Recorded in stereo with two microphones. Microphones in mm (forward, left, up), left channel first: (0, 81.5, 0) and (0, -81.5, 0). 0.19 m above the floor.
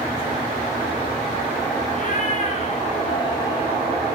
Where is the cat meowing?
55° left (ahead or behind), 3.5 m; by 3.7 s 30° left (ahead or behind), 3.5 m.